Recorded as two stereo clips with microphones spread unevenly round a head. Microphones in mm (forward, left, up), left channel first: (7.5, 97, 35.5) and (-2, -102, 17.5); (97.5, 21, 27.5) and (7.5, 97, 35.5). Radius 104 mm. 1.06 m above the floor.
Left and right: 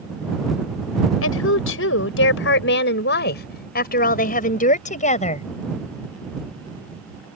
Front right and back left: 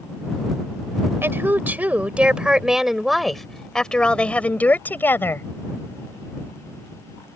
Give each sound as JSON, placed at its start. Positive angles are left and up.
{"t": 1.2, "sound": "a woman speaking", "azimuth_deg": 70}